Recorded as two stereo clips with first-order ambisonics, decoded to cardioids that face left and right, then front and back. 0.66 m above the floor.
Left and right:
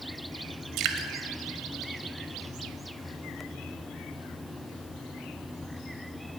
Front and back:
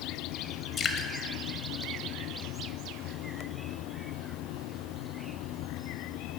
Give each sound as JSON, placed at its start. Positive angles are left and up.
{"t": 0.8, "sound": "dripping", "azimuth_deg": -60, "distance_m": 1.0}